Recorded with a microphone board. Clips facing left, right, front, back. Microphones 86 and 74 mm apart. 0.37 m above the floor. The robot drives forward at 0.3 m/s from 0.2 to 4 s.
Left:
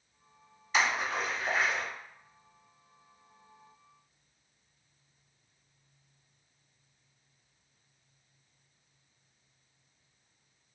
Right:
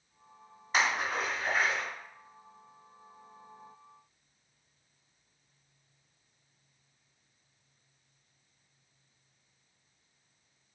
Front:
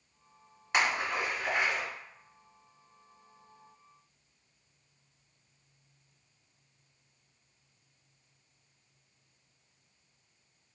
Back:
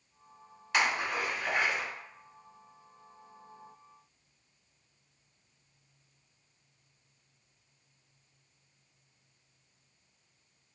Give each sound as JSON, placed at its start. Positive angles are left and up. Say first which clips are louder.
{"t": 0.7, "sound": "a splash", "louder": "even, even", "azimuth_deg": -60, "distance_m": 1.9}